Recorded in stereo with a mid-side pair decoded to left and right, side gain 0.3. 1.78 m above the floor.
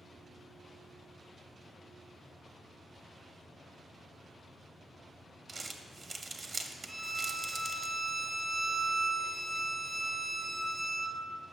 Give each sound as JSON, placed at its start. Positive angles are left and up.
{"t": 5.5, "sound": "crumpling", "azimuth_deg": -55, "distance_m": 0.7}
{"t": 6.9, "sound": "a violin", "azimuth_deg": -25, "distance_m": 0.7}